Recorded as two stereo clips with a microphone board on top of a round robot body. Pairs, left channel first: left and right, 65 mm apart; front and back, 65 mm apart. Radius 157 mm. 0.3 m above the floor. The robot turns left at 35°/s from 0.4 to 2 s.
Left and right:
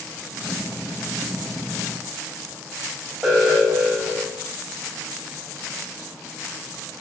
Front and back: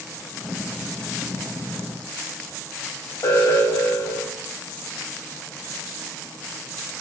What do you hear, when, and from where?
3.2 s an alarm: 5° right, 2.5 m